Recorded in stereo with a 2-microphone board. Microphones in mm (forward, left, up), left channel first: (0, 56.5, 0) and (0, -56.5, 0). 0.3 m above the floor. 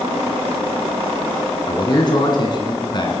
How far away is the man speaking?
About 2.5 m.